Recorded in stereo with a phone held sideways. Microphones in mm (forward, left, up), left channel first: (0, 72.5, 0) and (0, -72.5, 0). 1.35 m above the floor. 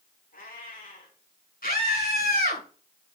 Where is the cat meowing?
75° left (ahead or behind), 7 m.